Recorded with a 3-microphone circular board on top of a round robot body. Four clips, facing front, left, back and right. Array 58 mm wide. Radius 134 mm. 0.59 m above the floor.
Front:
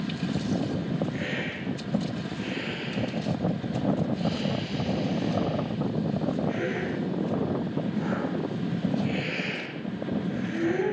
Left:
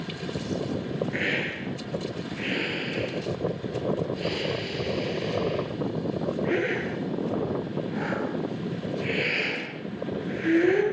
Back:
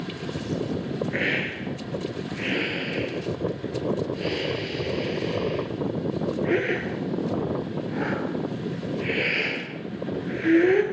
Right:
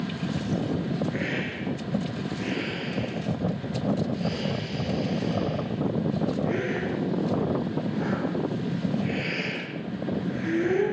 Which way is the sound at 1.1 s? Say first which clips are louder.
Left 1 dB, back 5 dB; 160° left.